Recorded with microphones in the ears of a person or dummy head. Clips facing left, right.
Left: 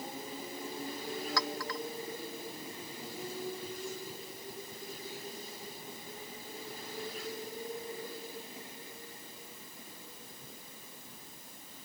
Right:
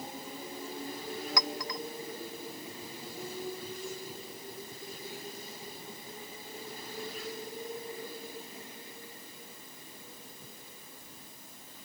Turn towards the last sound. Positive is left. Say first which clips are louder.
# even
turn(degrees=-20)  # may be behind; listen again after turning